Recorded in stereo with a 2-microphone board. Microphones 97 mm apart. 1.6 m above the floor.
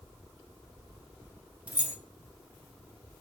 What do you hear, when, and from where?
1.7 s keys jangling: 15° right (ahead or behind), 0.5 m